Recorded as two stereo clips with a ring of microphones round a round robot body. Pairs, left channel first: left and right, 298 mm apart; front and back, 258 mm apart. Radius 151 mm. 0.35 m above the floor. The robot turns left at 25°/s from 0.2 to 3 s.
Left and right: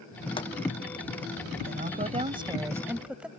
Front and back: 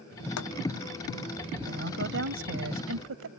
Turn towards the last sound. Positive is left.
turn(degrees=-175)